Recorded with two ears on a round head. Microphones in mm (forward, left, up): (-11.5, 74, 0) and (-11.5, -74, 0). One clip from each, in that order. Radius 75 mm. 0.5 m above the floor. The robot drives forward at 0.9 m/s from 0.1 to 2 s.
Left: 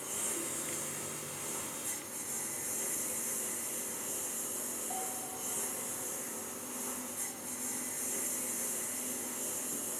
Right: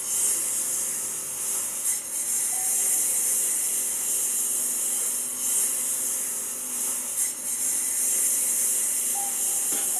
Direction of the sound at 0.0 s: 90° right.